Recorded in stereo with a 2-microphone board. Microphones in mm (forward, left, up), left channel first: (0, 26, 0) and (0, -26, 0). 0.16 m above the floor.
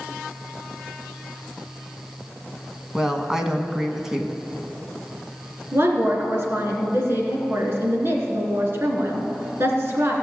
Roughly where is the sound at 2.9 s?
Centre.